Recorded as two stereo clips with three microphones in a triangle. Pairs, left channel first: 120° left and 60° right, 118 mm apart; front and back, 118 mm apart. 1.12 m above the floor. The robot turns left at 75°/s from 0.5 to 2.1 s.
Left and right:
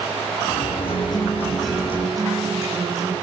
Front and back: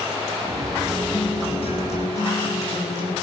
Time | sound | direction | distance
0.9 | a guitar | 90° left | 10 m